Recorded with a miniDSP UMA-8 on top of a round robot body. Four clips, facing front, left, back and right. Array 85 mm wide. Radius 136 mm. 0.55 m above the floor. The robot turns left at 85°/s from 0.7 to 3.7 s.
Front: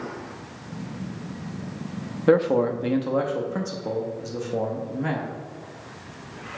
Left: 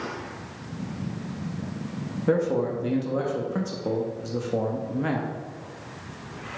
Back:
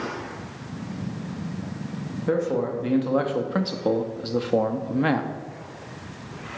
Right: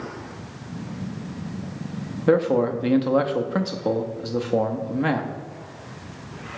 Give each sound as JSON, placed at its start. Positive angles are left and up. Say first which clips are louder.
{"t": 2.3, "sound": "a man speaking", "louder": "right 5 dB, front 5 dB", "azimuth_deg": -25, "distance_m": 0.7}